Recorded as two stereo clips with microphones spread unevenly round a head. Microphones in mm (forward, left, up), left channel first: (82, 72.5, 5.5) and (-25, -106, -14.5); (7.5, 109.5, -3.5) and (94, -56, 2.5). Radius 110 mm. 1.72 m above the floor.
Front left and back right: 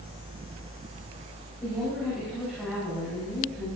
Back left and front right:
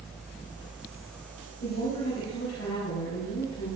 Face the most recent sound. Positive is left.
turn(degrees=150)